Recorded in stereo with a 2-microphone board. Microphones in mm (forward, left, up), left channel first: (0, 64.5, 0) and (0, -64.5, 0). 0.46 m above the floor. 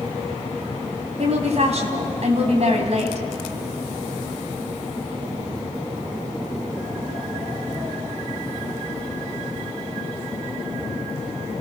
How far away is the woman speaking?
About 3.5 m.